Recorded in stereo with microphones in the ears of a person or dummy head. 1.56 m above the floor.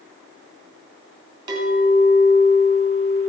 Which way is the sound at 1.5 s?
25° right (ahead or behind).